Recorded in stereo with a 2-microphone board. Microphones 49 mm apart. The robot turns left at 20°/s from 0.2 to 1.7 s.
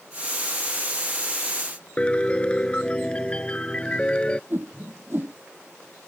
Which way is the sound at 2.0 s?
20° left (ahead or behind).